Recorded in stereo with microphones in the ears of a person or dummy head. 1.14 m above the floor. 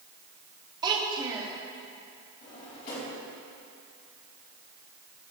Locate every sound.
0.8 s a child speaking: 20° right (ahead or behind), 1.6 m
2.4 s a drawer: 45° left (ahead or behind), 3.5 m